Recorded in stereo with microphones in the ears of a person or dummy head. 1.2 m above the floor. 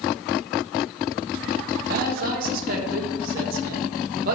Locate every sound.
1.9 s a man speaking: 55° right (ahead or behind), 1.5 m